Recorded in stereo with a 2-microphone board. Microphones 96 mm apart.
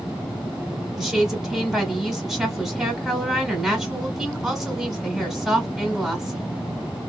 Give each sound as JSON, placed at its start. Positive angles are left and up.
{"t": 1.0, "sound": "a woman speaking", "side_deg": -5, "distance_m": 1.0}